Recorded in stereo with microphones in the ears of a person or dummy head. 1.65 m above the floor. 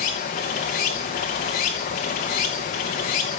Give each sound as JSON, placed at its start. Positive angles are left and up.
{"t": 0.0, "sound": "running water", "side_deg": 30, "distance_m": 0.9}